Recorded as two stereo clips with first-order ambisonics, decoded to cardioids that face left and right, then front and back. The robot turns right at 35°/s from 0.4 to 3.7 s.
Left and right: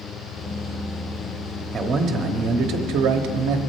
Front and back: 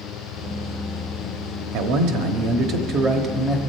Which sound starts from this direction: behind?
A man speaking, at 1.7 s.